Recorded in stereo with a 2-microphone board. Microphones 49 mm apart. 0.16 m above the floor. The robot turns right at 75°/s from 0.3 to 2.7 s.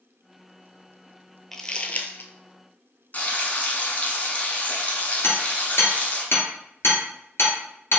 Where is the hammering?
55° left (ahead or behind), 1.9 m.